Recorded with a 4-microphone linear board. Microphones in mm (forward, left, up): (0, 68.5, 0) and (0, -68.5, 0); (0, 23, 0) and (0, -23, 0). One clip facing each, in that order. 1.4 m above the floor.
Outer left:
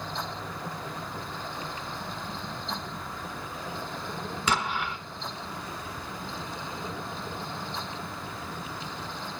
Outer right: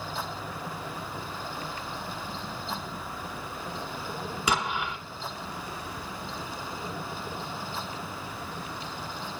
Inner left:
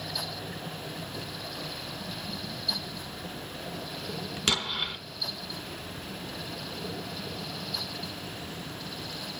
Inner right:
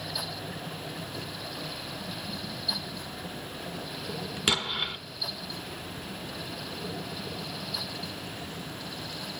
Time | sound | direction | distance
4.5 | an explosion | 10° right (ahead or behind) | 1.5 m